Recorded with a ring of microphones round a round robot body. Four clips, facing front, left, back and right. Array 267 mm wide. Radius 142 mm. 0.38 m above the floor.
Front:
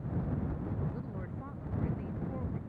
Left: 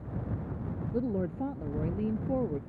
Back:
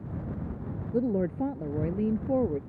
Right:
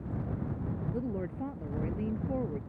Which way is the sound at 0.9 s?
170° left.